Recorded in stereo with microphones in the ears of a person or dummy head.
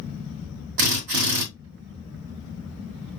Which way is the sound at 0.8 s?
60° right (ahead or behind).